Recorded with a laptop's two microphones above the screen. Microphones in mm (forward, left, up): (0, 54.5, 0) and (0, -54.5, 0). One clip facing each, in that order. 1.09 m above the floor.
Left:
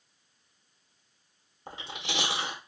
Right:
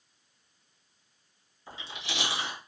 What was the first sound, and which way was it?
Chewing, 55° left (ahead or behind).